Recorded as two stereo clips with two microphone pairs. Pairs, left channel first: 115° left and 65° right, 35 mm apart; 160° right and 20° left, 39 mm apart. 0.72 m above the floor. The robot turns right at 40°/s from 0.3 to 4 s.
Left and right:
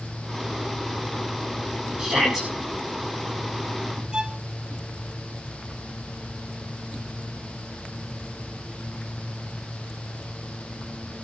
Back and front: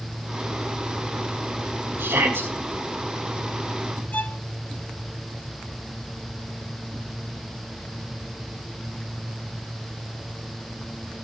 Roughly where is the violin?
Behind right.